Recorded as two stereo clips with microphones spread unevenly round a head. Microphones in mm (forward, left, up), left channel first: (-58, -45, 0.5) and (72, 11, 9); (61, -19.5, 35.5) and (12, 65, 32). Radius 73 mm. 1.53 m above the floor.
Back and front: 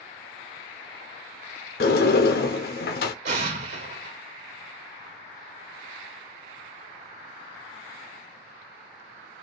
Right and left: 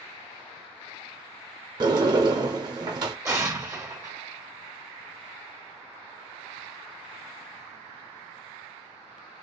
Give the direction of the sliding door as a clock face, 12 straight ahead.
6 o'clock.